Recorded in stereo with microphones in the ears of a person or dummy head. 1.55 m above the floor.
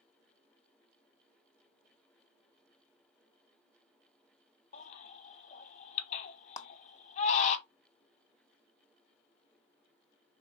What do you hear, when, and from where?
4.7 s a baby crying: 50° left (ahead or behind), 0.9 m
6.6 s a clap: 25° left (ahead or behind), 0.5 m